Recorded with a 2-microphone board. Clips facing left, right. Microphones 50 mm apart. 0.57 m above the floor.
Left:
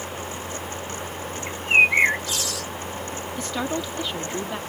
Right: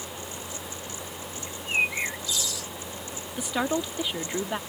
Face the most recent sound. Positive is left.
turn(degrees=-10)  # may be behind; listen again after turning